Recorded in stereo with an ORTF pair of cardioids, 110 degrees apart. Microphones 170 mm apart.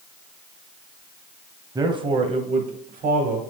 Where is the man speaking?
20° right, 1.3 m; by 3.4 s 60° right, 1.9 m.